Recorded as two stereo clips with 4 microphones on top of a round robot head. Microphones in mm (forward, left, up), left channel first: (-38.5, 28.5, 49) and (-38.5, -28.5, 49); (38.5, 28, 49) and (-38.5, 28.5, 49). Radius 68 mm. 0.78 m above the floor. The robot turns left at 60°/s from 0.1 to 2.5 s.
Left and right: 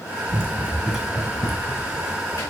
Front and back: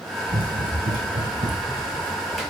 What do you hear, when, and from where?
0.3 s running footsteps: 130° right, 2.5 m; by 2.5 s 80° left, 3.5 m